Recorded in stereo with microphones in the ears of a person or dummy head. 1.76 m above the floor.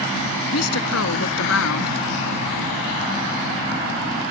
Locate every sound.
0.5 s a woman speaking: 85° left